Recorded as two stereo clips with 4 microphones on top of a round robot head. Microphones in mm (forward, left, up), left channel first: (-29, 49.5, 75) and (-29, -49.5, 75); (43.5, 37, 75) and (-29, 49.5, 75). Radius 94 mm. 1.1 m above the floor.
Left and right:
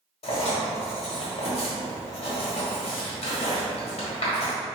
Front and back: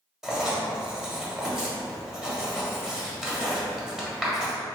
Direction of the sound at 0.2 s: 85° left.